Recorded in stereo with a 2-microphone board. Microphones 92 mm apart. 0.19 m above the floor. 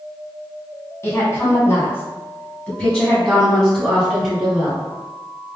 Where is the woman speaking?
30° left (ahead or behind), 1.8 m; by 4.8 s 5° right (ahead or behind), 2 m.